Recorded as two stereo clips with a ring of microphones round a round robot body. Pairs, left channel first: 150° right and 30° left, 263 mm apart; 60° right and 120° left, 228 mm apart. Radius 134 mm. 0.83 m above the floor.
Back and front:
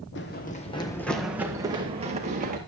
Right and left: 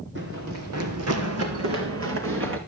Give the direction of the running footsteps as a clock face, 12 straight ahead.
6 o'clock.